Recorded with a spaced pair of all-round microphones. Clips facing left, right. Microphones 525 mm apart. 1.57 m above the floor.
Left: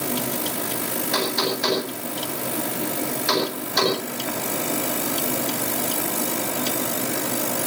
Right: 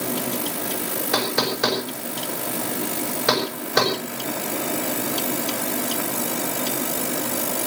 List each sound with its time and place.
1.1 s knocking: 80° right, 7.5 m